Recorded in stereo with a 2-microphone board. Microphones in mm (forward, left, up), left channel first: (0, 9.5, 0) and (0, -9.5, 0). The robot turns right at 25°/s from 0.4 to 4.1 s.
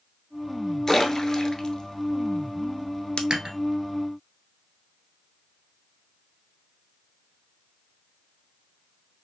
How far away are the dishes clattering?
About 1.7 m.